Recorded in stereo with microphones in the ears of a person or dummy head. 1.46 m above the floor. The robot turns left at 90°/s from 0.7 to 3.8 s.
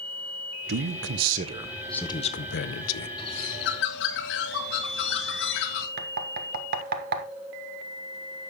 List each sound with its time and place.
0.7 s a man speaking: 75° right, 0.7 m; by 3.1 s 70° left, 0.7 m
3.2 s a bird: 155° left, 1.9 m; by 5.9 s 100° left, 1.9 m
6.0 s knocking: 50° right (ahead or behind), 1.3 m